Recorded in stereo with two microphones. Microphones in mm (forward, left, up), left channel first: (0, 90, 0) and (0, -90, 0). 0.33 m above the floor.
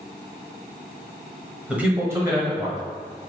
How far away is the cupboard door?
I don't hear a cupboard door.